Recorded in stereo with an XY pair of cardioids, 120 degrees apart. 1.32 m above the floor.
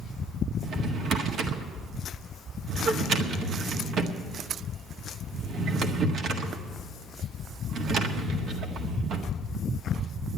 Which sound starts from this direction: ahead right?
A drawer, at 0.6 s.